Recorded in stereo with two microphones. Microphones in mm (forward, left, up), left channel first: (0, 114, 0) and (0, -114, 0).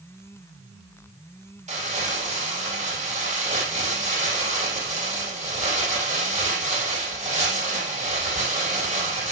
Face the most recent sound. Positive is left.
turn(degrees=-30)  # may be behind; listen again after turning